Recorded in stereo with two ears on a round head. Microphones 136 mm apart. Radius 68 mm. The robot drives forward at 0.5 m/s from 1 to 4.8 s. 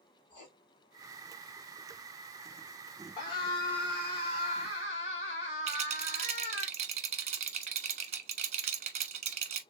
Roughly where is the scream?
Left.